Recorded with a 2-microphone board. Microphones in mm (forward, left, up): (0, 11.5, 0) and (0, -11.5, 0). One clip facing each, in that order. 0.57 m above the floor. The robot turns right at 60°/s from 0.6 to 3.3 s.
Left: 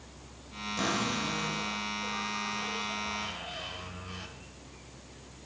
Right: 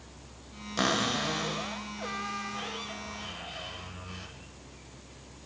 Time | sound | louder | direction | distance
0.8 | a cupboard door | right 3 dB | 145° right | 0.6 m